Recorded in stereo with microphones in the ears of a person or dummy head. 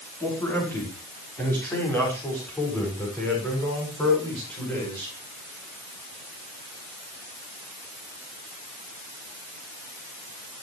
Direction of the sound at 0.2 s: 10° left (ahead or behind).